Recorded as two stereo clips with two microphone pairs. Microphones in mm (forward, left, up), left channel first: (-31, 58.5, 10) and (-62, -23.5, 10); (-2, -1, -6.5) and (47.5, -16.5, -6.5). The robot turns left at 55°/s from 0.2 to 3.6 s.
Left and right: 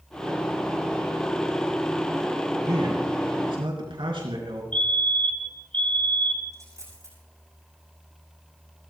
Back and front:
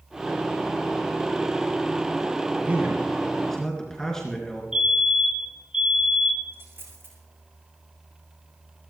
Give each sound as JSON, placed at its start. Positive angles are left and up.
{"t": 2.6, "sound": "a man speaking", "azimuth_deg": -60, "distance_m": 3.5}
{"t": 4.7, "sound": "a fire alarm", "azimuth_deg": 15, "distance_m": 2.5}
{"t": 6.5, "sound": "a dropped coin", "azimuth_deg": -55, "distance_m": 9.0}